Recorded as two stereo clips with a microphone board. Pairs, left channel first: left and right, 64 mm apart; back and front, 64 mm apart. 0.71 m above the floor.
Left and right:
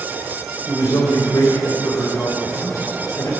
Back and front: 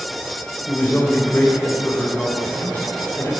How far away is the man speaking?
About 2.5 m.